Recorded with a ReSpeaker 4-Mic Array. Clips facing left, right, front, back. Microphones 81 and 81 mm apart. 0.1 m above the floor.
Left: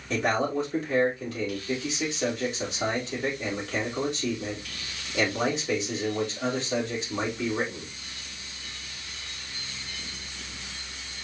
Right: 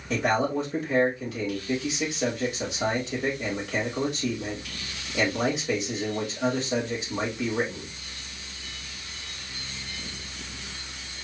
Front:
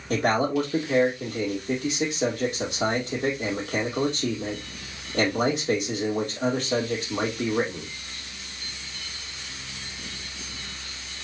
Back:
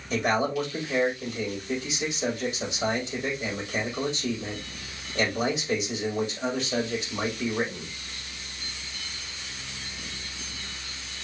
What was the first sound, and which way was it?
A man speaking, 5° right.